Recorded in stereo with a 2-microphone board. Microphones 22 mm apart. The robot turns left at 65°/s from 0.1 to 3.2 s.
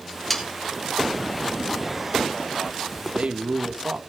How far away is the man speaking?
About 2.0 m.